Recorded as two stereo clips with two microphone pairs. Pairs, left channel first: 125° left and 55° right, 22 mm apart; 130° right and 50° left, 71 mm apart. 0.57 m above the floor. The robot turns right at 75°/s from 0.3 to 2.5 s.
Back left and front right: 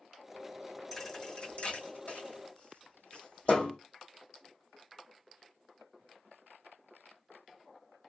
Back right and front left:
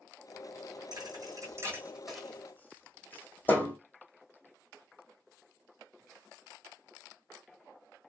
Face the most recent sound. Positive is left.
turn(degrees=165)